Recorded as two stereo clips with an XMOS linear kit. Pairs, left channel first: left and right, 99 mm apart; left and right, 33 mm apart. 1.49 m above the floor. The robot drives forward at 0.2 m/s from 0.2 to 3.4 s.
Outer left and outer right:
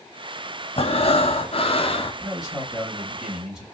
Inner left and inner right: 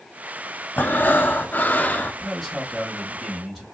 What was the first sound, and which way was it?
Breathing, 75° left (ahead or behind).